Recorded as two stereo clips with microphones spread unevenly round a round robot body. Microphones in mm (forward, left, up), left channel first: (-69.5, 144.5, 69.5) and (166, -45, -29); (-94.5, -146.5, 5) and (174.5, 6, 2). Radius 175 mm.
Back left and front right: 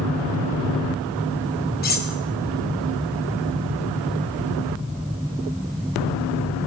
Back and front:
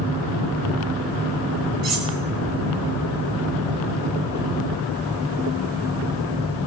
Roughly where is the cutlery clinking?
Left.